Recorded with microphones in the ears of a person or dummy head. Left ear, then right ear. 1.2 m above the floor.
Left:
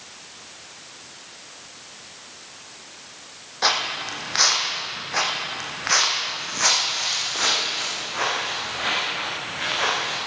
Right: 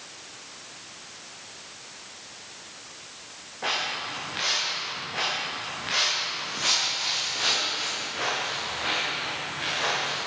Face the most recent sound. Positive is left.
turn(degrees=40)  # may be behind; listen again after turning